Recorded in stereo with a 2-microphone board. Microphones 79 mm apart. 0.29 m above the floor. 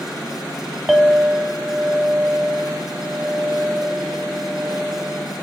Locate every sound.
0.9 s a clink: 5° right (ahead or behind), 0.8 m